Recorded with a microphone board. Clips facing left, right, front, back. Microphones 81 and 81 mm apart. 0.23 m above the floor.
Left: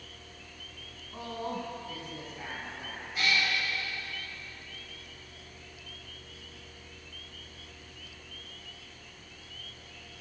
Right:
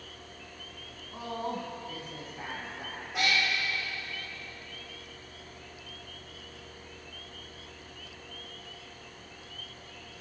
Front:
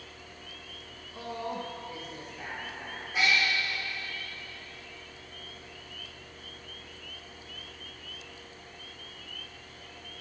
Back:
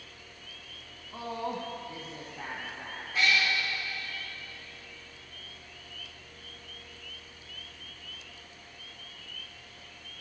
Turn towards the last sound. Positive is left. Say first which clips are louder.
# right 1 dB, even
turn(degrees=-75)